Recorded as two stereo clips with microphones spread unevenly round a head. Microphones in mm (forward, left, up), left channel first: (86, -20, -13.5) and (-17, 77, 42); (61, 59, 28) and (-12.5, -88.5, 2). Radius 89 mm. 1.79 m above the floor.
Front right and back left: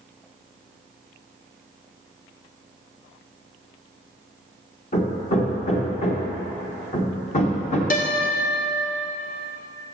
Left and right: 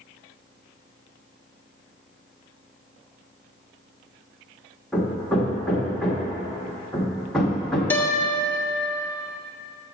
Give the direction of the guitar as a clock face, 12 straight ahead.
12 o'clock.